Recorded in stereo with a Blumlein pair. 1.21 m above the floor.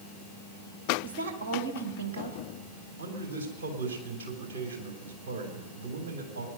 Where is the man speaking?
60° right, 3.5 m.